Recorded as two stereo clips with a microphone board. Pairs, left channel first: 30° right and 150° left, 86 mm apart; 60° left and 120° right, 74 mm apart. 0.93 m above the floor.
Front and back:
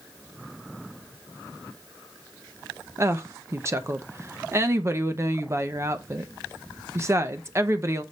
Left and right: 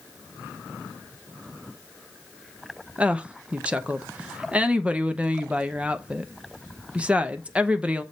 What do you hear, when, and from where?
3.0 s a woman speaking: 175° left, 0.7 m